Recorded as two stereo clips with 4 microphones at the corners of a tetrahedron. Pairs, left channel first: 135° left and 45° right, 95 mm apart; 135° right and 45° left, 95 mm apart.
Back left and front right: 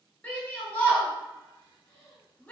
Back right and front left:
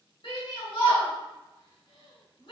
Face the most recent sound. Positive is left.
turn(degrees=-155)